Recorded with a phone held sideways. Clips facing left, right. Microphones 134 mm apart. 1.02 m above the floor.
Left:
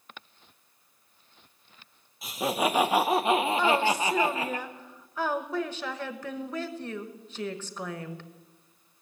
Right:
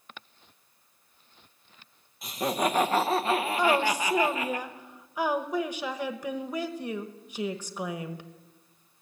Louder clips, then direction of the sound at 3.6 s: Even; 15° right (ahead or behind).